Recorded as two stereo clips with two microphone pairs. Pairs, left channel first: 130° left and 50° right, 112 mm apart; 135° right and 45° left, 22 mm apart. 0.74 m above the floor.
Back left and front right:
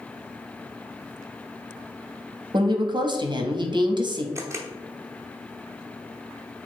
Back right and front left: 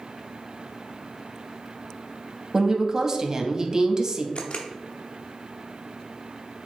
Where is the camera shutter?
110° right, 0.6 m.